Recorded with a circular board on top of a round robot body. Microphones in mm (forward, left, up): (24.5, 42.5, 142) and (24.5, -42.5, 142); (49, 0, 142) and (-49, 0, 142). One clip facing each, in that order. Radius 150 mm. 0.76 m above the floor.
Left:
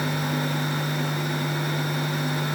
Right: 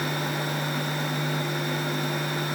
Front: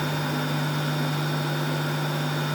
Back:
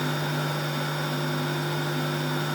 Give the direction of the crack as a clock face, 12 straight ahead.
No crack in this recording.